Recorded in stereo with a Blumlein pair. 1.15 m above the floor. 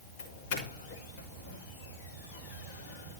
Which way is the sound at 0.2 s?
55° left.